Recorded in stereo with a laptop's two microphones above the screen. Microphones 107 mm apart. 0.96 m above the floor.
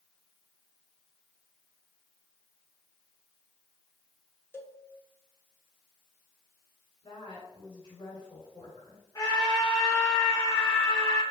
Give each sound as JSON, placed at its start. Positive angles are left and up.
{"t": 4.5, "sound": "a cowbell", "side_deg": 20, "distance_m": 0.5}
{"t": 7.0, "sound": "a woman speaking", "side_deg": 60, "distance_m": 3.0}
{"t": 9.2, "sound": "a scream", "side_deg": 35, "distance_m": 1.2}